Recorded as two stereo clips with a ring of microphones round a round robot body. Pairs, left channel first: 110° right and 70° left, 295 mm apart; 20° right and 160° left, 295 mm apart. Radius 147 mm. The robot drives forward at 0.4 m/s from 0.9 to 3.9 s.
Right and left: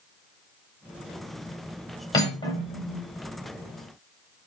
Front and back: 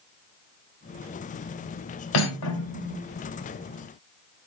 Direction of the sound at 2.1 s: 35° right.